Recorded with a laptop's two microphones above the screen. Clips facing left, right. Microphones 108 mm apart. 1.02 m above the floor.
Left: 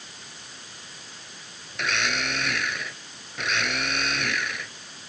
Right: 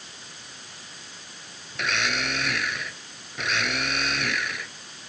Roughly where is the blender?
Centre.